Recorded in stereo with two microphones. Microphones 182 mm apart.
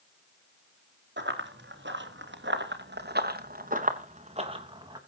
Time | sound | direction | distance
1.2 | running footsteps | 75° right (ahead or behind) | 3.5 m